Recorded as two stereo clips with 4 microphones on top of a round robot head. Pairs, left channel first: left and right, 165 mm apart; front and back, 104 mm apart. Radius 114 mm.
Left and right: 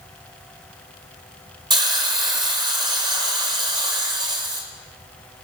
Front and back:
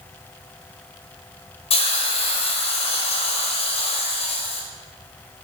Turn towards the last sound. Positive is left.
turn(degrees=-25)